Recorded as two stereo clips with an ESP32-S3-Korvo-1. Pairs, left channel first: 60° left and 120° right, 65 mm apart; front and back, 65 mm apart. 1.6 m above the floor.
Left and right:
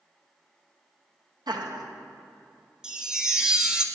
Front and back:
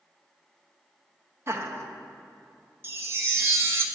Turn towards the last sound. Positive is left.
turn(degrees=165)